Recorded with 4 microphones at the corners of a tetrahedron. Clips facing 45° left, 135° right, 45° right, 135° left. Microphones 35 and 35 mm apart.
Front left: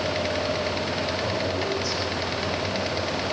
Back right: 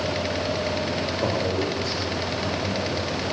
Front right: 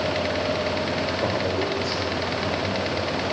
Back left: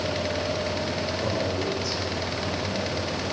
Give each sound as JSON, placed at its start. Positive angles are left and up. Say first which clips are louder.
{"t": 1.2, "sound": "a man speaking", "louder": "back right 2 dB, front right 1 dB", "azimuth_deg": -90, "distance_m": 9.5}